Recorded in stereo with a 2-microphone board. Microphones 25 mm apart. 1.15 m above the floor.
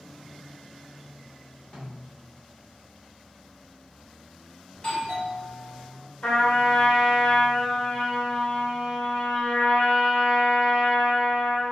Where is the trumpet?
50° left (ahead or behind), 1.6 m.